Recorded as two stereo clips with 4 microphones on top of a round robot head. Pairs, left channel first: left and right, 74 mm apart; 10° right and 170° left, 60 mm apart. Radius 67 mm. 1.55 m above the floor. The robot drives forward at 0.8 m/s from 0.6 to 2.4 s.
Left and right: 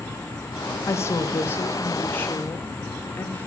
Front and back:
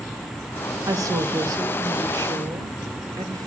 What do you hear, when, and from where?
0.9 s a woman speaking: 140° left, 2 m; by 3.5 s 155° left, 3 m